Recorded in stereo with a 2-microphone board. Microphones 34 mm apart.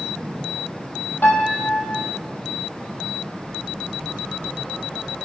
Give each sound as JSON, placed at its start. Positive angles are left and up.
{"t": 1.2, "sound": "a piano", "side_deg": 65, "distance_m": 3.5}